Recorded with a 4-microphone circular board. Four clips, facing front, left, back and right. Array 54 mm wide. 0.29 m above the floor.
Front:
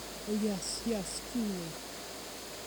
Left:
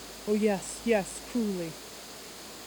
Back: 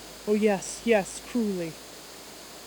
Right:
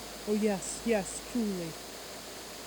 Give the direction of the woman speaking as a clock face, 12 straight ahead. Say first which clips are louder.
Left 3 dB, back 10 dB; 6 o'clock.